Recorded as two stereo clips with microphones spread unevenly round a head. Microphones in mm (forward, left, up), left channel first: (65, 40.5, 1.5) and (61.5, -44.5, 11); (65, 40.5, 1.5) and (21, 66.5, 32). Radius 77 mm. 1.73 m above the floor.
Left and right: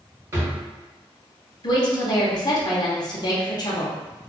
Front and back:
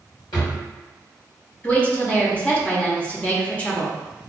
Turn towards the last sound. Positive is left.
turn(degrees=55)